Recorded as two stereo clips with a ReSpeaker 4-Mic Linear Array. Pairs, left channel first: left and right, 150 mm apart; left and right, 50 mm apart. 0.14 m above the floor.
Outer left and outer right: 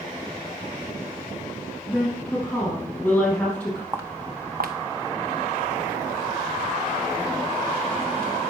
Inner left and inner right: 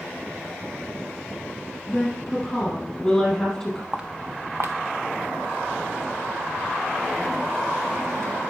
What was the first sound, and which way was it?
A woman speaking, 10° left (ahead or behind).